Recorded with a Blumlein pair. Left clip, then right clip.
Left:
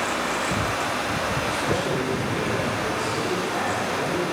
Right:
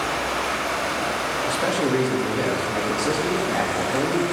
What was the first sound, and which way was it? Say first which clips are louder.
Running water: right 1 dB; 5° right.